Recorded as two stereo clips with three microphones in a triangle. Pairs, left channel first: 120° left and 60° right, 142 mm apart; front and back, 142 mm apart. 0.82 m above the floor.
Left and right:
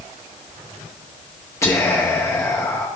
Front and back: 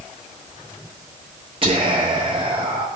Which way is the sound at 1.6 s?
175° left.